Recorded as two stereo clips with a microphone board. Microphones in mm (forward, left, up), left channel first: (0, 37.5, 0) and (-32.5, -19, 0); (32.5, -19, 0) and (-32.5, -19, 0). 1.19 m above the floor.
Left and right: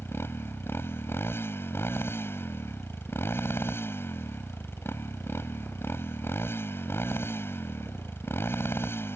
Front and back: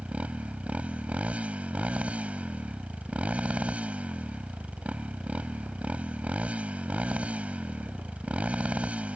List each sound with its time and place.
0.0 s a motorcycle: 110° left